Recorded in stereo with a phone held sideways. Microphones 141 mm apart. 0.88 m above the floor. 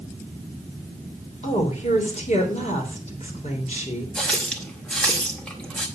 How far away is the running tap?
About 1.8 m.